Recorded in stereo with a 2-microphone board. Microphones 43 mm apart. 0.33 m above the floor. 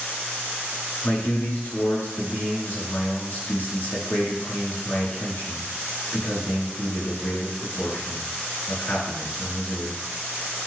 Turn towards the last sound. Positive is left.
turn(degrees=60)  # may be behind; listen again after turning